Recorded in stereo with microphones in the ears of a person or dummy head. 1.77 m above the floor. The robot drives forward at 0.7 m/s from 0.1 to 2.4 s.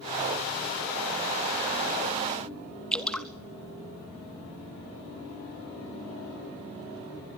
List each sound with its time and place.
2.9 s dripping: 5° left (ahead or behind), 0.6 m